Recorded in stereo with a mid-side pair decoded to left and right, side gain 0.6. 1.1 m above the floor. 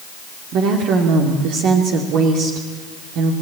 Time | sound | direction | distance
0.5 | a woman speaking | 65° right | 2.5 m